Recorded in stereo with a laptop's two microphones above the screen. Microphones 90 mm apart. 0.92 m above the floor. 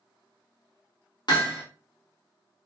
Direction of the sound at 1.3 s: 55° left (ahead or behind).